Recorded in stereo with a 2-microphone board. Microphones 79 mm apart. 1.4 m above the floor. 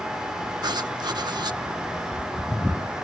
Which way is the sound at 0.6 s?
65° right (ahead or behind).